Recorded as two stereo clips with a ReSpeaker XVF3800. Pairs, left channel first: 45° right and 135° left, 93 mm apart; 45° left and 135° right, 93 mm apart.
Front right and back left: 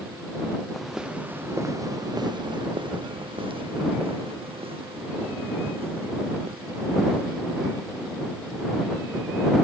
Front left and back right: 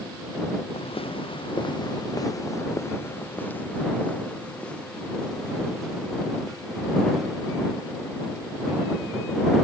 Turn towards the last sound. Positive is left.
turn(degrees=135)